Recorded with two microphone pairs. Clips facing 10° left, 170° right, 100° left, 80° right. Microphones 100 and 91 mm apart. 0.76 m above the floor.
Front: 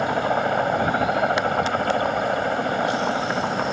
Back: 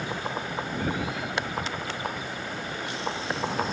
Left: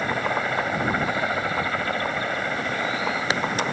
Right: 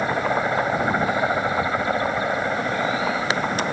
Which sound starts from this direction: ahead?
A helicopter, at 0.0 s.